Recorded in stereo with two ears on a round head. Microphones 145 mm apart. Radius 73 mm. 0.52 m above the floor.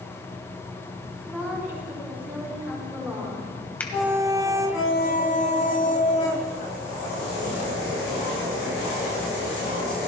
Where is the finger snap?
10° left (ahead or behind), 2 m.